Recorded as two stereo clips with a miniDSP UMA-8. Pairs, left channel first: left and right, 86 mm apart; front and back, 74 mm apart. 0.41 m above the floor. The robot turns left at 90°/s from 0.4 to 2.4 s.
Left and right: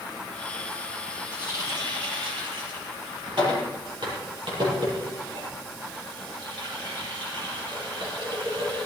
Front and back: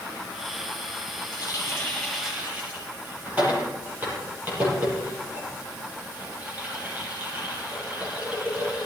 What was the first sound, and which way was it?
A running tap, 15° right.